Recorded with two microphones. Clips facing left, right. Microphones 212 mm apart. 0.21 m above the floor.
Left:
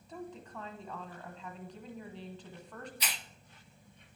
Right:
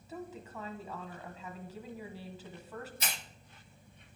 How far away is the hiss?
About 0.5 m.